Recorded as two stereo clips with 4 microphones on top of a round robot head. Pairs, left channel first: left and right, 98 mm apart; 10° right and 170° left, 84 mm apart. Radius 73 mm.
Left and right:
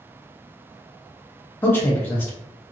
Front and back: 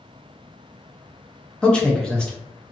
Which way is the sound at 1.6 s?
60° left.